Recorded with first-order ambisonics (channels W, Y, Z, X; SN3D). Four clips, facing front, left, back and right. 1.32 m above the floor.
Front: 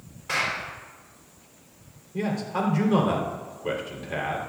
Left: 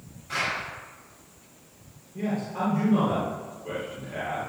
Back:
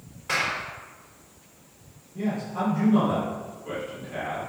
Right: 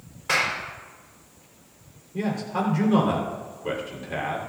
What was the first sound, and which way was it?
A clap, 95° right.